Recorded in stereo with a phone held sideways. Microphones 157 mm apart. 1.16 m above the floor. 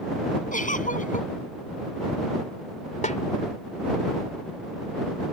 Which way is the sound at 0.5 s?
55° left (ahead or behind).